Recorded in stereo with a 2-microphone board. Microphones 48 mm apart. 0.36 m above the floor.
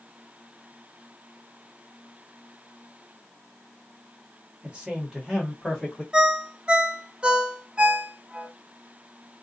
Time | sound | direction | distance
4.6 | a man speaking | 25° right (ahead or behind) | 1.1 m
6.1 | a ringtone | 20° right (ahead or behind) | 0.5 m